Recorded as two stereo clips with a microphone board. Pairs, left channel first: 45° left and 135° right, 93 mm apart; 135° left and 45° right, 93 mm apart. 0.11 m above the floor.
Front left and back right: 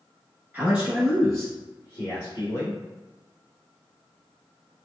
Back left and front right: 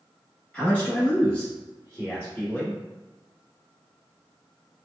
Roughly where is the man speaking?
Behind.